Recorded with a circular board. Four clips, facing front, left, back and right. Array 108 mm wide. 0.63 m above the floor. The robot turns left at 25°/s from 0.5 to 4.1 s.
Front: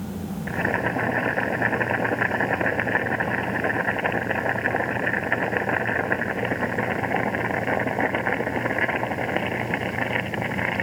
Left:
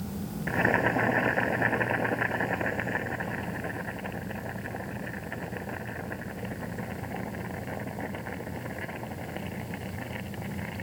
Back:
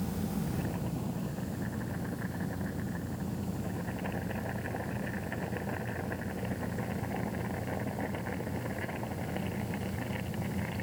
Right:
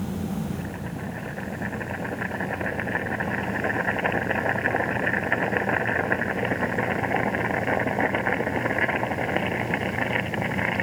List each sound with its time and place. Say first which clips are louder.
0.5 s boiling: left 7 dB, front 11 dB; 45° left; by 10.8 s 45° right